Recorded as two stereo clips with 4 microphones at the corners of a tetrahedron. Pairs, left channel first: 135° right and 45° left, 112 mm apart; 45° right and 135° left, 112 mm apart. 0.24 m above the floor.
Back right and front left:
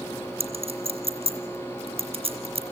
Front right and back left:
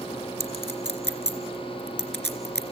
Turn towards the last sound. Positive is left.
turn(degrees=25)